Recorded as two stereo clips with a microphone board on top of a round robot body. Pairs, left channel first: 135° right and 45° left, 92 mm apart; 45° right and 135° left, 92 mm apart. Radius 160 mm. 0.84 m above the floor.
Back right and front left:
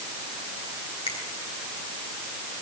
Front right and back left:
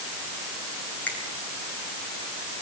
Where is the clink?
I don't hear a clink.